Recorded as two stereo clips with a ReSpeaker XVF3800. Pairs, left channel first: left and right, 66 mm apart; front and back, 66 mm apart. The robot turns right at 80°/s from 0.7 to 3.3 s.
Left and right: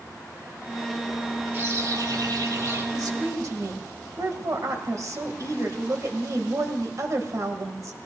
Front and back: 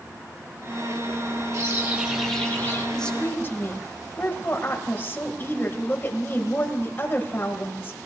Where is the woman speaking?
85° right, 1.8 m; by 8.0 s 55° right, 1.8 m.